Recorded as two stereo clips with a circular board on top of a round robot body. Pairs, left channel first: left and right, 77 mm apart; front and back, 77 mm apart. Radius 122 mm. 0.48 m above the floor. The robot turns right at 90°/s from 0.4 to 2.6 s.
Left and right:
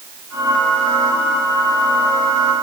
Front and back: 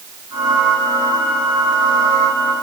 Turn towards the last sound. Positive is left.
No sound to turn to.